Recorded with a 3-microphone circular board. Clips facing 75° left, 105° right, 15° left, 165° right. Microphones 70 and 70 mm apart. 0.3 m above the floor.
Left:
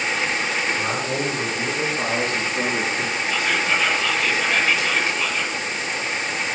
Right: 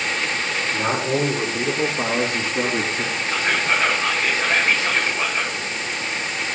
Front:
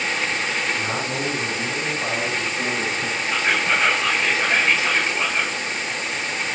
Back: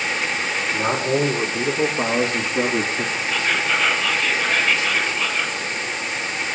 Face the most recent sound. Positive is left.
turn(degrees=-50)